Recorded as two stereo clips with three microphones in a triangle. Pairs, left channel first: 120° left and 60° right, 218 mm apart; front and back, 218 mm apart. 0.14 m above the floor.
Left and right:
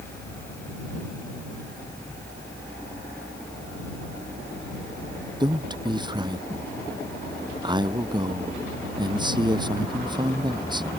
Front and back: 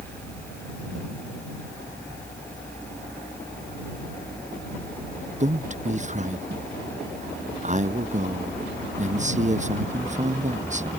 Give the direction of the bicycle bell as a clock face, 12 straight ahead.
I don't hear a bicycle bell.